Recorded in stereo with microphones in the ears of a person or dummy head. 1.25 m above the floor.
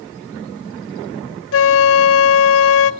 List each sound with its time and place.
1.5 s a flute: 60° left (ahead or behind), 0.7 m